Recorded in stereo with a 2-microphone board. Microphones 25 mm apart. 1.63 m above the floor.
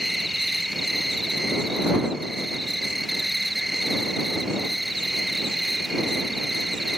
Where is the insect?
5° right (ahead or behind).